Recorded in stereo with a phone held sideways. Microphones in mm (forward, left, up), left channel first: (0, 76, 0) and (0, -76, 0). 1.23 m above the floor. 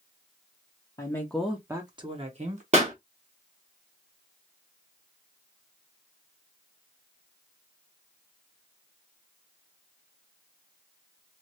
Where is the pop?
45° right (ahead or behind), 1.2 m.